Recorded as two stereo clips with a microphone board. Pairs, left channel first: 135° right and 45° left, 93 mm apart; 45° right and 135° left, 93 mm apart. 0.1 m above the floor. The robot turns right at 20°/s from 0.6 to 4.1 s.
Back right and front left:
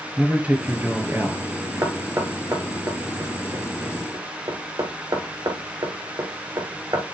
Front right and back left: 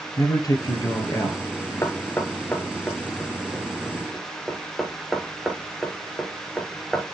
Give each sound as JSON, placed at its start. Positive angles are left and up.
{"t": 0.2, "sound": "a man speaking", "azimuth_deg": -25, "distance_m": 1.9}
{"t": 1.8, "sound": "knocking", "azimuth_deg": 5, "distance_m": 1.0}